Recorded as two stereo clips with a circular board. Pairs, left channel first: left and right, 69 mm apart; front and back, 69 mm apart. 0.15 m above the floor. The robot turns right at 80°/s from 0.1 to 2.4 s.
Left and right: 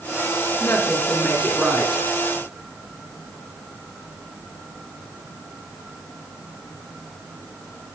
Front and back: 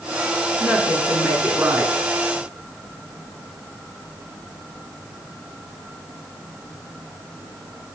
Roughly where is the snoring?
No snoring in this recording.